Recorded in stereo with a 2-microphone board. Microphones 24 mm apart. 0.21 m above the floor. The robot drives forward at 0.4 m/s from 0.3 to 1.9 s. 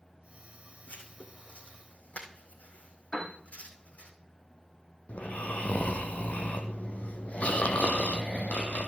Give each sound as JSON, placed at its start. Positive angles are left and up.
{"t": 0.9, "sound": "writing", "side_deg": 85, "distance_m": 3.0}
{"t": 3.1, "sound": "a piano", "side_deg": 30, "distance_m": 3.5}
{"t": 5.1, "sound": "snoring", "side_deg": 70, "distance_m": 1.2}